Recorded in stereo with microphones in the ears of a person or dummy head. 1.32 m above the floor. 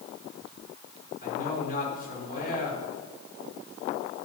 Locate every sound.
1.2 s a man speaking: 50° left (ahead or behind), 4 m